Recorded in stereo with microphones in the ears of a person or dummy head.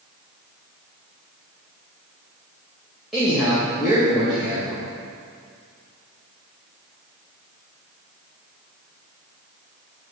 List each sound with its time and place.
3.1 s a man speaking: 5° right (ahead or behind), 1.8 m